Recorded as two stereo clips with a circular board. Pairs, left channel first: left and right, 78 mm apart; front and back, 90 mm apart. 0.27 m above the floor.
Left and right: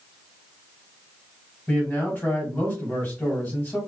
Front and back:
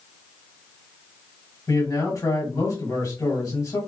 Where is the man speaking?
30° left, 1.6 m.